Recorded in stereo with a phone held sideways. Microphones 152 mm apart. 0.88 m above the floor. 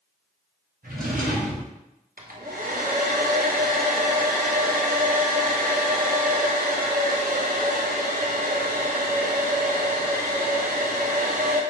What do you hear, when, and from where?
0.8 s a drawer: 75° right (ahead or behind), 1.8 m
2.2 s a hair dryer: 70° right (ahead or behind), 0.6 m